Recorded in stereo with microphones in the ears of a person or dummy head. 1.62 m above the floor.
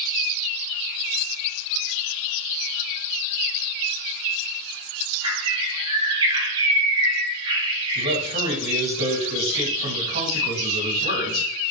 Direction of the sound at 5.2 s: 30° right (ahead or behind).